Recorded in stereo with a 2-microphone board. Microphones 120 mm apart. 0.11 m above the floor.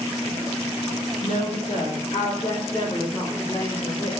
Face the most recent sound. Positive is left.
turn(degrees=30)  # may be behind; listen again after turning